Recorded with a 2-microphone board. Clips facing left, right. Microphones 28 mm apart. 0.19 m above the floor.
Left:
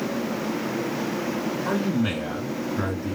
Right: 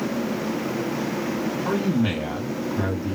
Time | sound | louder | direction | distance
1.6 | a man speaking | right 2 dB | 25° right (ahead or behind) | 1.6 m